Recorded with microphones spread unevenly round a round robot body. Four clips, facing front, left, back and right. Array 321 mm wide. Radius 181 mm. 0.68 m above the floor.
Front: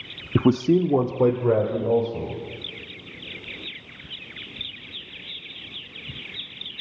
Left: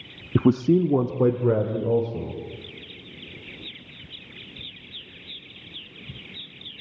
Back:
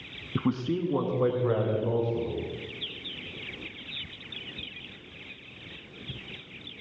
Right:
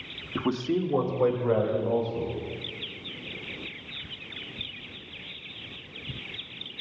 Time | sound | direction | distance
0.3 | a man speaking | 35° left | 0.7 m